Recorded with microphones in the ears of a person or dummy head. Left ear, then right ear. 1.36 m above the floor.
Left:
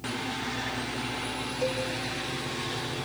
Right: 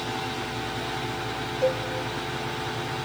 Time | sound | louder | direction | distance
1.6 | a cowbell | right 5 dB | 65° left (ahead or behind) | 2 m